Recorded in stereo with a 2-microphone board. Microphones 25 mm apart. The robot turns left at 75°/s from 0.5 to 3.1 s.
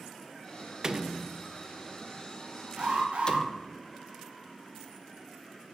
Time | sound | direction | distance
0.8 | a door slam | 30° right (ahead or behind) | 0.7 m
2.8 | an alarm | 80° right | 5 m